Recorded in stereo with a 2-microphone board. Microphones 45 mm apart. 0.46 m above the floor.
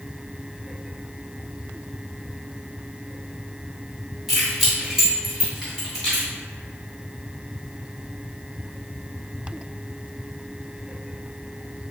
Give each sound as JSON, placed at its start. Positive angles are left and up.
{"t": 4.3, "sound": "keys jangling", "side_deg": -5, "distance_m": 1.7}